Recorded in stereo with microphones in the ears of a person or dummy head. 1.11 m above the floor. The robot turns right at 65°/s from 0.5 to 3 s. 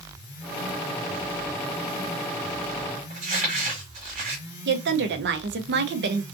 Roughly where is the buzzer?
I don't hear a buzzer.